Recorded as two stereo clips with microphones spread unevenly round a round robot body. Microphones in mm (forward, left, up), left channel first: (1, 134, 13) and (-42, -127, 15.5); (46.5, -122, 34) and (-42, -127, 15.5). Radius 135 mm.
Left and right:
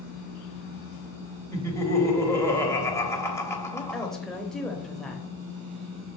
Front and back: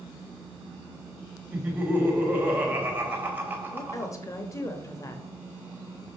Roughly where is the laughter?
Behind left.